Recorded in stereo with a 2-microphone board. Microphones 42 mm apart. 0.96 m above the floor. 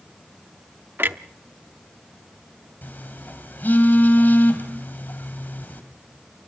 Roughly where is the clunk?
Right.